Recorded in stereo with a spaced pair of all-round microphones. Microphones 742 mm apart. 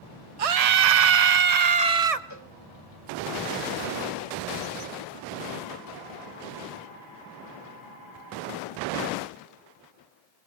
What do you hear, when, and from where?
0.4 s a scream: 50° right (ahead or behind), 0.6 m
2.3 s a cowbell: 25° left (ahead or behind), 1.3 m